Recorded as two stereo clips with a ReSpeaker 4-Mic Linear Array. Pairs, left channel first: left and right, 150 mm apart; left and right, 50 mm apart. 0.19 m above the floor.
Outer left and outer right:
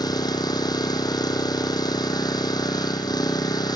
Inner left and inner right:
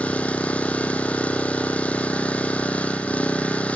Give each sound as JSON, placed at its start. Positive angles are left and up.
{"t": 0.0, "sound": "an engine running", "side_deg": 25, "distance_m": 1.9}